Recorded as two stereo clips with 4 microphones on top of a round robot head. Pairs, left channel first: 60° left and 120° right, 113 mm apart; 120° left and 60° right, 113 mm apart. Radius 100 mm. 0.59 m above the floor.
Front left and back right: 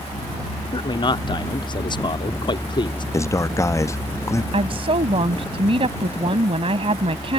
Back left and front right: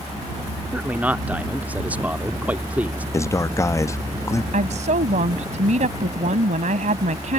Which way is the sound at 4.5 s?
80° right.